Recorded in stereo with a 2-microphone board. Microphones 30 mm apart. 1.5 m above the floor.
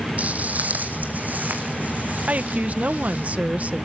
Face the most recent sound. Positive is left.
turn(degrees=-50)  # may be behind; listen again after turning